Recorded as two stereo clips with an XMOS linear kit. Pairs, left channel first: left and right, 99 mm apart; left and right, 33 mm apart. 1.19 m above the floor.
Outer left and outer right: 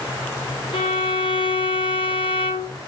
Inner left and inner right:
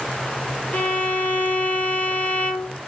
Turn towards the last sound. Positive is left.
turn(degrees=55)  # may be behind; listen again after turning